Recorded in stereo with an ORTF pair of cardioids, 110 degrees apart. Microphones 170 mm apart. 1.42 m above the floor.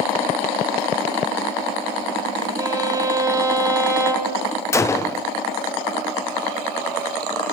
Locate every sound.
2.6 s a violin: 20° right, 5 m
4.7 s a gunshot: 15° left, 1.1 m